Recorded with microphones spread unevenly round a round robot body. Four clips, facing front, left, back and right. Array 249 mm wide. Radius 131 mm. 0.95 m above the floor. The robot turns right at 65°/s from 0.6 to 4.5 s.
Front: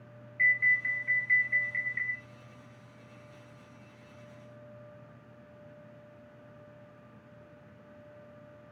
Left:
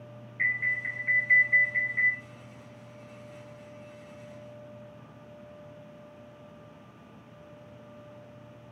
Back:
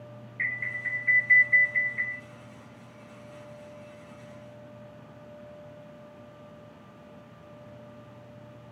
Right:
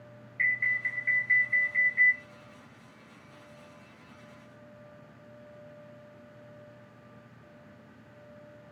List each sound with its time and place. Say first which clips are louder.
0.4 s an alarm: right 1 dB, front 6 dB; straight ahead, 1.0 m; by 2.2 s 100° left, 1.0 m